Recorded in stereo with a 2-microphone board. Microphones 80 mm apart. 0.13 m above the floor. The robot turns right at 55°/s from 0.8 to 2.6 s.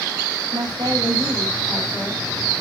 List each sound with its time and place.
0.5 s a woman speaking: 60° right, 6 m; by 2.6 s 40° left, 6 m